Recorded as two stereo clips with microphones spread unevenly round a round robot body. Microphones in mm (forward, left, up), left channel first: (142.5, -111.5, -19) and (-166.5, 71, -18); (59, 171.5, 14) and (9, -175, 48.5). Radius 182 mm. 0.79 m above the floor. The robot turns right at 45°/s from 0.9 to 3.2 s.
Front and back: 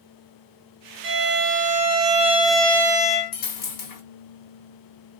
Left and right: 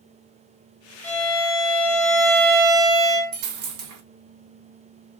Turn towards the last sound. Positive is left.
turn(degrees=-65)